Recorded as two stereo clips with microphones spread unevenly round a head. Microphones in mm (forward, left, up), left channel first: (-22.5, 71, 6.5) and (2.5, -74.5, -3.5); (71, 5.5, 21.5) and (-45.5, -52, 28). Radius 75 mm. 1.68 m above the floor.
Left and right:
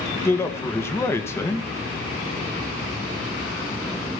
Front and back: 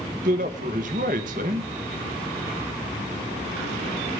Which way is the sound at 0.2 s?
170° left.